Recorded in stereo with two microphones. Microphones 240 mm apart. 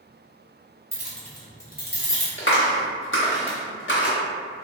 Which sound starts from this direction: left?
A clap, at 2.4 s.